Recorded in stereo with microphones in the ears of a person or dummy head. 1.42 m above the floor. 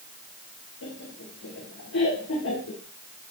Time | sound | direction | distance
0.8 | laughter | 70° left (ahead or behind) | 3.5 m